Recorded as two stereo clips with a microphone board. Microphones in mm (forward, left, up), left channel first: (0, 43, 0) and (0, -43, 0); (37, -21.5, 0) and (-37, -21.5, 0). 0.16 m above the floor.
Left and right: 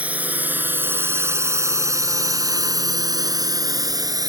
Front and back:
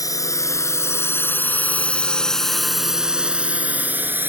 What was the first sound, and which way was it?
A drone, 20° right.